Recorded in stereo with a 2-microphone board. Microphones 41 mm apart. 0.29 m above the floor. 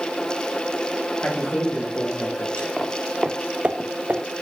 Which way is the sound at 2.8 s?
Centre (ahead or behind).